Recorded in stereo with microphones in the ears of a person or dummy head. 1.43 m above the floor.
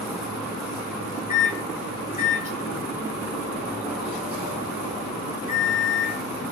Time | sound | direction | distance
1.3 | a microwave | 40° left (ahead or behind) | 0.9 m